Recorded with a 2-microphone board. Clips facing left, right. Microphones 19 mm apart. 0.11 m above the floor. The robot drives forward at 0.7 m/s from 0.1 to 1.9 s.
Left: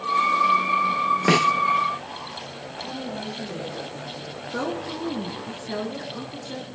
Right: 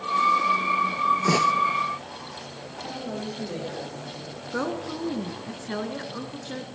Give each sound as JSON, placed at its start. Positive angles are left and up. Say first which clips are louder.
{"t": 1.3, "sound": "a snare drum", "louder": "left 5 dB", "side_deg": 55, "distance_m": 0.6}
{"t": 2.8, "sound": "a woman speaking", "louder": "left 1 dB", "side_deg": -75, "distance_m": 5.0}
{"t": 4.5, "sound": "a woman speaking", "louder": "even", "side_deg": -15, "distance_m": 1.1}